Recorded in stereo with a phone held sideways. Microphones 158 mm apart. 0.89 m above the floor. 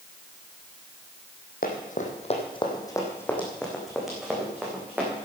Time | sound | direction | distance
1.6 | running footsteps | 65° left (ahead or behind) | 2.5 m